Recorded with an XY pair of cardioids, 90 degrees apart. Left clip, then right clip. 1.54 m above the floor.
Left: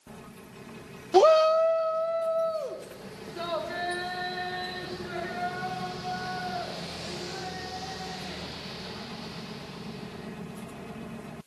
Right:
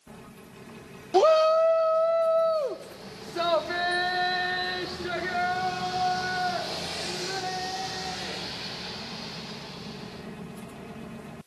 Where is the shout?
15° left, 0.5 m; by 10.2 s 70° right, 8 m.